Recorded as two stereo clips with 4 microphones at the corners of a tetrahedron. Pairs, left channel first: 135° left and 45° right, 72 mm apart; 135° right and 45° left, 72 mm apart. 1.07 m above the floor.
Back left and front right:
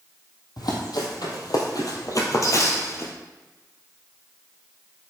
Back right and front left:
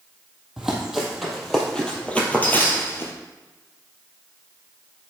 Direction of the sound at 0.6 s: 130° left.